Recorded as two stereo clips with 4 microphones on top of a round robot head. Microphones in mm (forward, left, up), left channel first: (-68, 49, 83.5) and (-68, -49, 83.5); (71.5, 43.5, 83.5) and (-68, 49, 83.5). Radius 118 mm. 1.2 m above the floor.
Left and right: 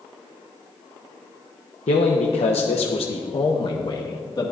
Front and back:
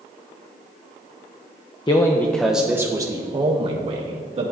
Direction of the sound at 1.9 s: 55° left.